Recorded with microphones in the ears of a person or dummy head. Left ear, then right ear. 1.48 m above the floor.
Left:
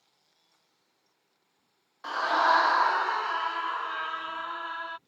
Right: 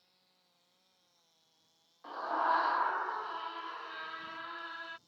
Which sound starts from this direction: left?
A scream, at 2.0 s.